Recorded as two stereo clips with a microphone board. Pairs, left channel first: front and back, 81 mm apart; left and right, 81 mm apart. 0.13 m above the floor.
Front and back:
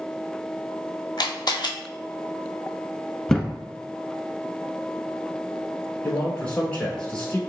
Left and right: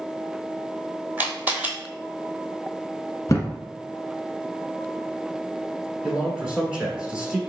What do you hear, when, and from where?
1.2 s a camera shutter: 25° right, 0.8 m
3.3 s a thud: 80° left, 0.8 m
6.0 s a man speaking: 35° right, 1.1 m